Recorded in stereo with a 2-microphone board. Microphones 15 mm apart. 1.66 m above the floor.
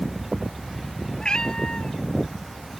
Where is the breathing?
No breathing in this recording.